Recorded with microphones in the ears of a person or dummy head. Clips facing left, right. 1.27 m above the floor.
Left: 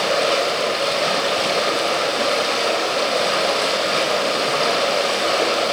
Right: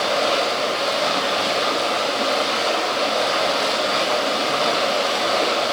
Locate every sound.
0.0 s running water: 35° left (ahead or behind), 3 m